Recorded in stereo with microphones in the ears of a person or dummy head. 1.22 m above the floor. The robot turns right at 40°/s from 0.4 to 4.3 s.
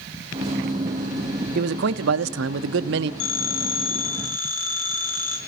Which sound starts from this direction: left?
A phone ringing, at 3.2 s.